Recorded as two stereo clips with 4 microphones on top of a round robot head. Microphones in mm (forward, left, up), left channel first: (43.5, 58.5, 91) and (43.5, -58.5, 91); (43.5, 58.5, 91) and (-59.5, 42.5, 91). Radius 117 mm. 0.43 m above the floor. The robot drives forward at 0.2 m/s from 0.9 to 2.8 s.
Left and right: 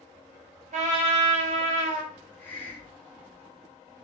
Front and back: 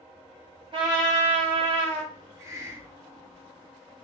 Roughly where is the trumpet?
Behind right.